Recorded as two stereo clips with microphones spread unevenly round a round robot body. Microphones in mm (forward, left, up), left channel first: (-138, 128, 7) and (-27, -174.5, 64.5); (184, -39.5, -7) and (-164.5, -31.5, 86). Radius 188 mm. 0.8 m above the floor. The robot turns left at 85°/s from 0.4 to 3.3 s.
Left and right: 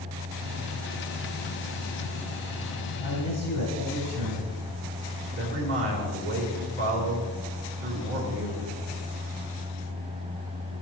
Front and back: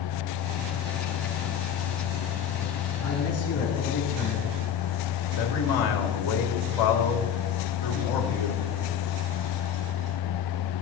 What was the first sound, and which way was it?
A man speaking, 70° left.